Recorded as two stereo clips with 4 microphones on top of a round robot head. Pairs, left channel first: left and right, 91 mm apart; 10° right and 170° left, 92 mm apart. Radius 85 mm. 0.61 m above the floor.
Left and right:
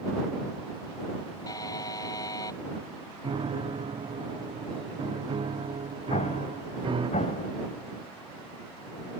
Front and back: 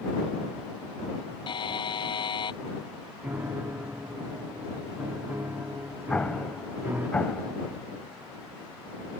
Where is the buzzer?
30° left.